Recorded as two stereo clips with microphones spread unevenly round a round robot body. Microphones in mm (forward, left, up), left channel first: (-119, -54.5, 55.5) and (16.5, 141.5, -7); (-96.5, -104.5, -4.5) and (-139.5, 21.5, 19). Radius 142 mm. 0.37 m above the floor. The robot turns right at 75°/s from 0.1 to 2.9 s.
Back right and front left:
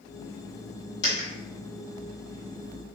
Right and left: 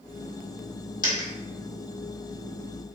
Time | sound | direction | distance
1.0 | a dropped coin | 75° right | 1.7 m